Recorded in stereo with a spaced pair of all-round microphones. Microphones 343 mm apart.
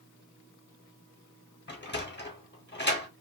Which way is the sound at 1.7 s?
30° left (ahead or behind).